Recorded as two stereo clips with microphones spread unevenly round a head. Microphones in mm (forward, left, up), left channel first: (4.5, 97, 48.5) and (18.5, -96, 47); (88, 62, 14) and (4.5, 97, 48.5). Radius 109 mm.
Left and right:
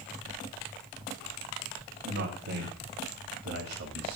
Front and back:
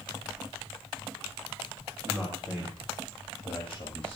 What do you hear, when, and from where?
2.0 s a man speaking: 100° right, 3 m; by 4.2 s 75° right, 2.5 m